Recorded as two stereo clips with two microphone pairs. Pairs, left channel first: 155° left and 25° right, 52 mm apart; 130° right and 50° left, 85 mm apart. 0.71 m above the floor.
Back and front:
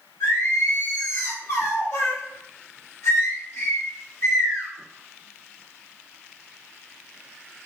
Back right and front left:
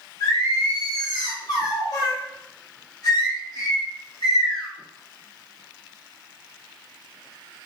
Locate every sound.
0.2 s singing: 175° right, 1.3 m